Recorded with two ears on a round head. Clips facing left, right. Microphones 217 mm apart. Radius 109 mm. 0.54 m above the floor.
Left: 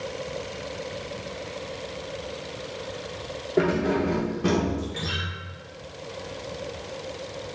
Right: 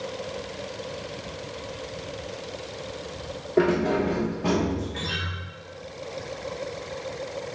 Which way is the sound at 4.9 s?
20° left (ahead or behind).